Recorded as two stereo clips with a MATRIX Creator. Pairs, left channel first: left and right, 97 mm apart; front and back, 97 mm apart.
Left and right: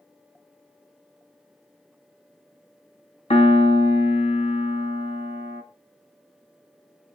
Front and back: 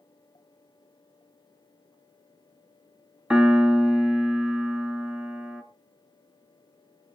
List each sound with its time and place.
3.3 s a piano: 95° left, 1.5 m